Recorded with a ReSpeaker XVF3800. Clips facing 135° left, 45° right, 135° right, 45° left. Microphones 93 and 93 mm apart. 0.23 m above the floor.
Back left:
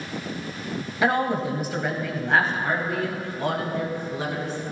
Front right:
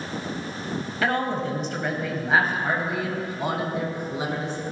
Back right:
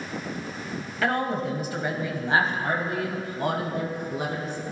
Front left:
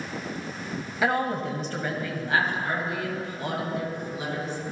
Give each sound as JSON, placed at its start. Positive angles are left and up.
{"t": 1.0, "sound": "a woman speaking", "azimuth_deg": 100, "distance_m": 1.1}